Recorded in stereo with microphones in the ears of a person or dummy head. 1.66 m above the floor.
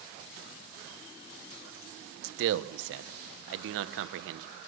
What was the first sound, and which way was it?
A man speaking, 75° right (ahead or behind).